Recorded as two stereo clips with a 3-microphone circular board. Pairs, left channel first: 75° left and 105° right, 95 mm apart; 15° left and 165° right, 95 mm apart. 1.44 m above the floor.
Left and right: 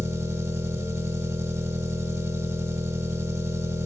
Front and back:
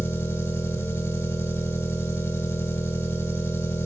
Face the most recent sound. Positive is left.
turn(degrees=-50)